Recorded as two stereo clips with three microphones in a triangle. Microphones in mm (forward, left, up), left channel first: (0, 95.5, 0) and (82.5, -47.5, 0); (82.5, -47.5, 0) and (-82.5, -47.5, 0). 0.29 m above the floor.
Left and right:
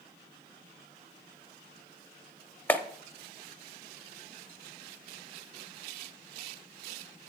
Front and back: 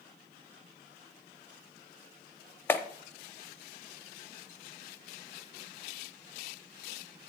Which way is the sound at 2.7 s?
60° left.